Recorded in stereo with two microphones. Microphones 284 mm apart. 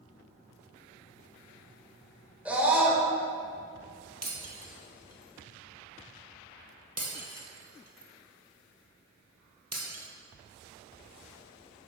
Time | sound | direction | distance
2.5 | a scream | 5° right (ahead or behind) | 1.4 m
4.2 | breaking glass | 60° right (ahead or behind) | 1.2 m